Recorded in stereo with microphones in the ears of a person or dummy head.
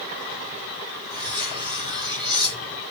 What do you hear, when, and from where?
1.1 s cutlery clinking: 25° right (ahead or behind), 1.5 m